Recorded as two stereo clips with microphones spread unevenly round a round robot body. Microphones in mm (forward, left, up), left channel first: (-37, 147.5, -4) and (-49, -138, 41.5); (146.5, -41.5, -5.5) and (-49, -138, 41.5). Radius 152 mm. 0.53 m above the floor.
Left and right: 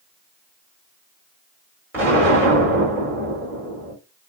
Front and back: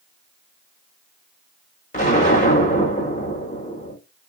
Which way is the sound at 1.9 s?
5° right.